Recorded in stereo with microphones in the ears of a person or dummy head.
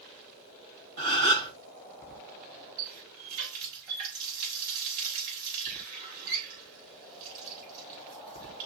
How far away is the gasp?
About 2.5 m.